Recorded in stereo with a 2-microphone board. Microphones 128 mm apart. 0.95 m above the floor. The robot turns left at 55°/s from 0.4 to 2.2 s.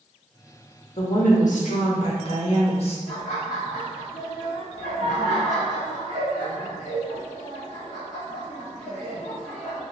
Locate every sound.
1.0 s a woman speaking: 120° left, 1.2 m; by 3.0 s 55° left, 1.2 m
3.1 s laughter: 75° left (ahead or behind), 1.7 m